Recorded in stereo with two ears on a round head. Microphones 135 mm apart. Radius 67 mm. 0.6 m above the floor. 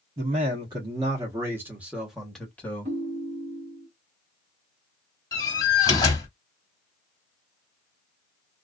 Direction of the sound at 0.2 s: 35° right (ahead or behind).